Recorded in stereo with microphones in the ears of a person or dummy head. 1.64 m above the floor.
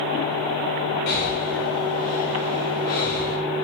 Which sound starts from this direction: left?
Breathing, at 1.1 s.